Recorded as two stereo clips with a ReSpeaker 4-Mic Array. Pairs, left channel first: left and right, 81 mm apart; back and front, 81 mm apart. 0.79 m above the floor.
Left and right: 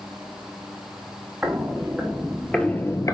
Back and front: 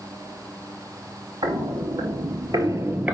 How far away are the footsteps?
About 2.5 m.